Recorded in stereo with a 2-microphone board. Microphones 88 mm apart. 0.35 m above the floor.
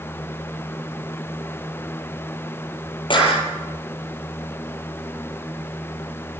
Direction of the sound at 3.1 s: 60° left (ahead or behind).